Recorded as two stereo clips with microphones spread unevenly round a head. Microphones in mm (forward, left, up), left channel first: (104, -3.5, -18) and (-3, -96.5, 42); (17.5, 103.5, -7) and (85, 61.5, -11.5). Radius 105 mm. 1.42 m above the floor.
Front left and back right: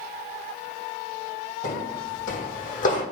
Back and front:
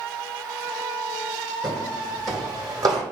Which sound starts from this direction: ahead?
Footsteps, at 1.6 s.